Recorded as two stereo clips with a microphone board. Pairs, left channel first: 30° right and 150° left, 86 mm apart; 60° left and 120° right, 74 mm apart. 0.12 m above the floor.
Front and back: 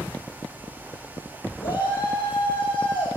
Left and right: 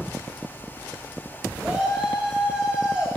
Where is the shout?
35° right, 6.5 m; by 3.1 s 40° right, 7.5 m.